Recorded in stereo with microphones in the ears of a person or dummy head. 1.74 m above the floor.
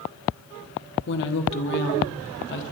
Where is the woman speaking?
60° left (ahead or behind), 1.8 m.